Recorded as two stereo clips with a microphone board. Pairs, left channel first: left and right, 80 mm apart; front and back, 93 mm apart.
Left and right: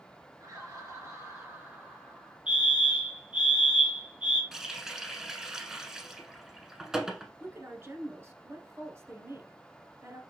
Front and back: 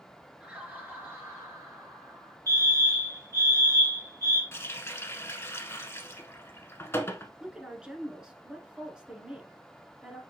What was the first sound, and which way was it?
Laughter, 105° right.